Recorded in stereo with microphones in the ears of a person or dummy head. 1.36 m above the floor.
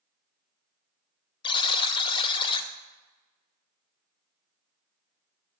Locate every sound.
1.4 s a buzzer: 25° left (ahead or behind), 0.5 m